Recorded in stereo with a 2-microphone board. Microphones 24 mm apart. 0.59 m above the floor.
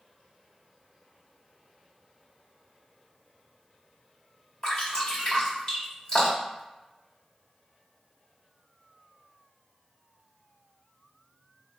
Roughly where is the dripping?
Left.